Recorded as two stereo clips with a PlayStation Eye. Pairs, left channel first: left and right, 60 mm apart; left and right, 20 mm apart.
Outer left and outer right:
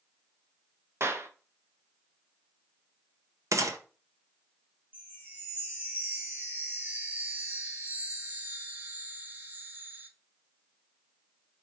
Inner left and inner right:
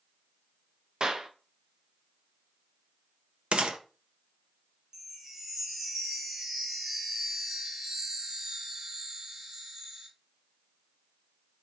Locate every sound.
1.0 s a clap: 45° right (ahead or behind), 0.6 m
3.5 s a gunshot: 60° right (ahead or behind), 0.6 m
4.9 s a chime: 30° right (ahead or behind), 1.0 m